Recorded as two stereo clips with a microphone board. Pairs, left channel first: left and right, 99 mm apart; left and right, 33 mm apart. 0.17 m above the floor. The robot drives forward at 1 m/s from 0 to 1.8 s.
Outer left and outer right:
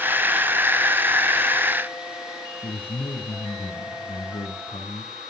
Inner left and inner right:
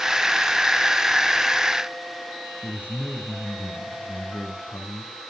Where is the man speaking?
60° left (ahead or behind), 4 m.